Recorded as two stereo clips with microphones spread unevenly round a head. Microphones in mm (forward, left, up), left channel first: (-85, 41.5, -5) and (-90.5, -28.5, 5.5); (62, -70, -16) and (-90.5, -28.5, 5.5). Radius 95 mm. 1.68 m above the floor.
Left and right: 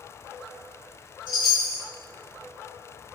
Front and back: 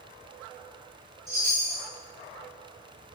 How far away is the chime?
About 2.5 m.